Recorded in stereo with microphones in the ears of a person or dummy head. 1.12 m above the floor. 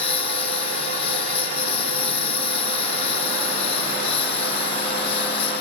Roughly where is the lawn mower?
Left.